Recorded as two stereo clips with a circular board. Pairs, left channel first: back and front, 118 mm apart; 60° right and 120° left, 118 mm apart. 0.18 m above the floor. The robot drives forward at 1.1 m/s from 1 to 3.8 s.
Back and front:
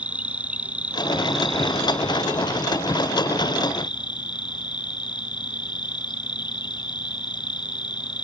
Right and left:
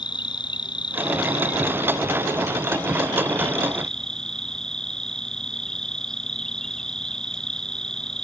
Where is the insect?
75° right; by 8.2 s 145° right.